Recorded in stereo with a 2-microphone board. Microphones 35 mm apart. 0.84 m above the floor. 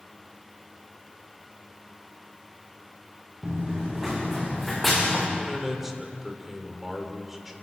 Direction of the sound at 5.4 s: 10° right (ahead or behind).